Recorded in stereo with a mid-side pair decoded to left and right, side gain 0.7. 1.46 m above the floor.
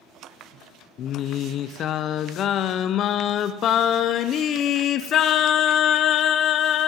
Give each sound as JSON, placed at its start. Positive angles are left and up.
{"t": 1.0, "sound": "singing", "azimuth_deg": 45, "distance_m": 0.6}